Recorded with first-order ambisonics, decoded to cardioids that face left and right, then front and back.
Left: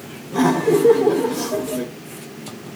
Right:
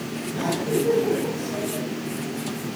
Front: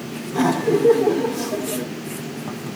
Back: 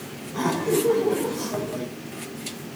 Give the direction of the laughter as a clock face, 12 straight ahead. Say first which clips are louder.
Left 8 dB, front 4 dB; 10 o'clock.